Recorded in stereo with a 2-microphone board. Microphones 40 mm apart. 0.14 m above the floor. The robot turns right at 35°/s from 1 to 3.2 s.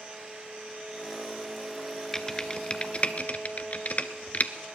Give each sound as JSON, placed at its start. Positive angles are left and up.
{"t": 2.1, "sound": "typing on a keyboard", "side_deg": 10, "distance_m": 0.6}